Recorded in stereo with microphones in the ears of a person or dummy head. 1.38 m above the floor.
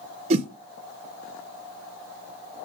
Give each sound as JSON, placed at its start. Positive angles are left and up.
{"t": 0.3, "sound": "a whoosh", "side_deg": -30, "distance_m": 0.6}